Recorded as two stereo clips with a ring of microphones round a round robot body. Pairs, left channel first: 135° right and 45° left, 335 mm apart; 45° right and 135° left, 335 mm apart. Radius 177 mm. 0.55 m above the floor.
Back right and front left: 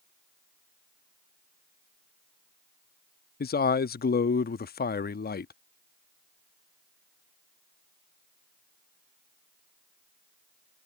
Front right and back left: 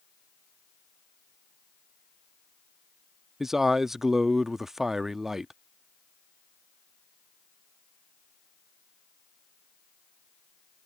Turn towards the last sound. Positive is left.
turn(degrees=-140)